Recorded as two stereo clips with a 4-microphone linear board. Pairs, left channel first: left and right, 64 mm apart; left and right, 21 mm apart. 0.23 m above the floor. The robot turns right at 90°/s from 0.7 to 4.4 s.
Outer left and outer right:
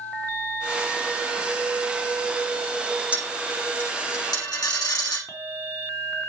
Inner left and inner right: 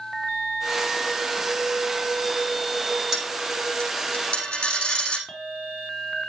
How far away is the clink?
About 2 m.